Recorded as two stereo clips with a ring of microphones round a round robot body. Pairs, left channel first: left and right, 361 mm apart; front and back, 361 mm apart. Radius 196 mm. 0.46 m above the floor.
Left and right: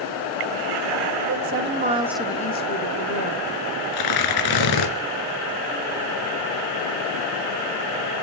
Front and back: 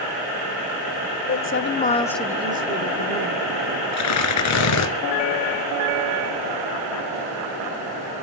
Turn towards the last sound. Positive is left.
turn(degrees=50)